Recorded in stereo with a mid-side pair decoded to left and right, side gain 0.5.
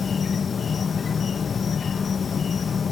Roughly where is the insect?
Ahead left.